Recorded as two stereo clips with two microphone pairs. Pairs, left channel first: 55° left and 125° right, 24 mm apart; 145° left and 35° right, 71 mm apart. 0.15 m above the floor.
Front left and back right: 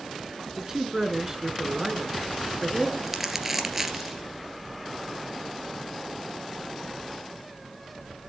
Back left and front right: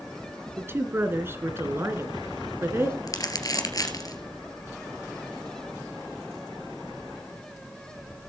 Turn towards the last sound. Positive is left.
turn(degrees=160)